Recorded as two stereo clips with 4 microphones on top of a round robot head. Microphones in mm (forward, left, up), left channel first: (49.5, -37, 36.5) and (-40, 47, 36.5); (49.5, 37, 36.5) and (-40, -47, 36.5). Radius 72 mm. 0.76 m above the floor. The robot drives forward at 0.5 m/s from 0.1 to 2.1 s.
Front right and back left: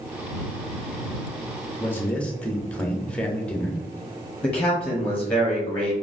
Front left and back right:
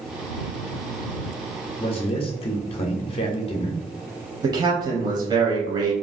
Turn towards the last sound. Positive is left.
turn(degrees=-115)